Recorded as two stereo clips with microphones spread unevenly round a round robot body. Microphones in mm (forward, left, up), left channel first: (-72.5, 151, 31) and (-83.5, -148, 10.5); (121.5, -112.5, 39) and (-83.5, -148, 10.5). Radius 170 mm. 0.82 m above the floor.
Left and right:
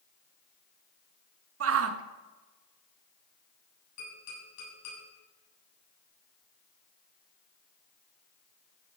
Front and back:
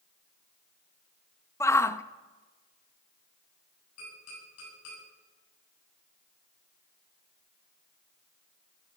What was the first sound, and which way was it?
A shout, 70° right.